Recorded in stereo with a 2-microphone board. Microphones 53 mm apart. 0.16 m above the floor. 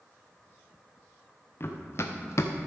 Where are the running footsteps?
50° left (ahead or behind), 1.4 m; by 2.7 s 75° left (ahead or behind), 0.9 m.